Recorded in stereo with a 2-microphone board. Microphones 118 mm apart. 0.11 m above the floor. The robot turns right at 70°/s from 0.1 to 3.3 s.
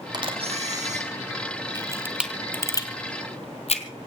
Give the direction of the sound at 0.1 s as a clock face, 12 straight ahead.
5 o'clock.